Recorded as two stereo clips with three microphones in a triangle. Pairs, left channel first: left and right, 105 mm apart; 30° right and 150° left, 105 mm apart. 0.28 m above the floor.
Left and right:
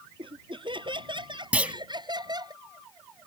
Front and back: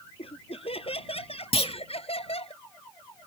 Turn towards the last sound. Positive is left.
turn(degrees=-15)